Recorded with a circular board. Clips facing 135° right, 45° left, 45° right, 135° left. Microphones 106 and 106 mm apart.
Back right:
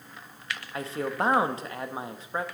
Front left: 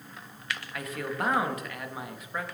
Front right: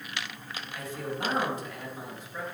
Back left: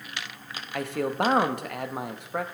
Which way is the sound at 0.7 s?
165° left.